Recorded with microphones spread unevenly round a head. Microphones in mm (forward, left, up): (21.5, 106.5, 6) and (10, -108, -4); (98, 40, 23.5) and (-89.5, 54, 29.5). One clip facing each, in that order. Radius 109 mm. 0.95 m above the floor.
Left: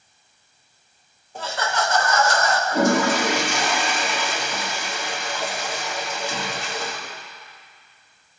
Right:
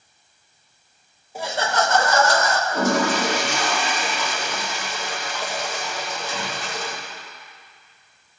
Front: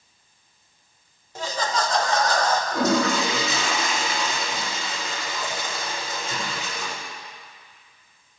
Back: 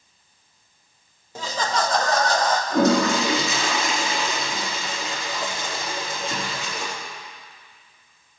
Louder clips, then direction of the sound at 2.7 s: Left 3 dB, back 5 dB; 165° left.